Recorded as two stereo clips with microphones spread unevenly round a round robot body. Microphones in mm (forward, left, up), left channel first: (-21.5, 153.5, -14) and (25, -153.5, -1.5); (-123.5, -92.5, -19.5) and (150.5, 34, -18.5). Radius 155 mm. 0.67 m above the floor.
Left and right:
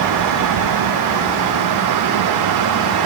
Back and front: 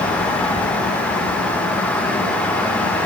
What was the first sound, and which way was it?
Only background noise.